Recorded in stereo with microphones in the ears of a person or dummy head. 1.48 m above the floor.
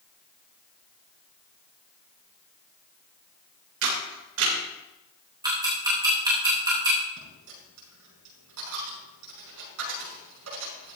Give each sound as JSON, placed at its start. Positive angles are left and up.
{"t": 3.8, "sound": "a camera shutter", "side_deg": -75, "distance_m": 4.0}
{"t": 5.4, "sound": "ticking", "side_deg": -25, "distance_m": 4.0}
{"t": 7.2, "sound": "a dropped coin", "side_deg": -80, "distance_m": 6.0}